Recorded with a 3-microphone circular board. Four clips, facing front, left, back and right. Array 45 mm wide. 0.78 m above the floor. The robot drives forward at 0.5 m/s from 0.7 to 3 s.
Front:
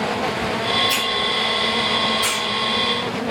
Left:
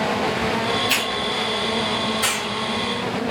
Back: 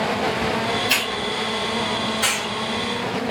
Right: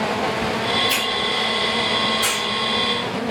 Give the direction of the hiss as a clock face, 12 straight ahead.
7 o'clock.